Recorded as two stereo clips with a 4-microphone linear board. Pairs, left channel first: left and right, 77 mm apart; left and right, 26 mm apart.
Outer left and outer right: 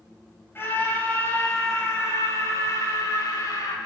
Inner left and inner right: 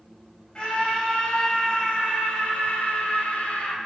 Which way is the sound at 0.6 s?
30° left (ahead or behind).